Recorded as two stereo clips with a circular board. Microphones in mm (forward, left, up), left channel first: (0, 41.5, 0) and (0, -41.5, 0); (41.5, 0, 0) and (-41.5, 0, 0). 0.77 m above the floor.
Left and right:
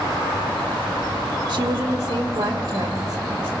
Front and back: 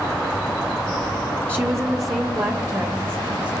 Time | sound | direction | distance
1.5 | a woman speaking | 115° right | 0.9 m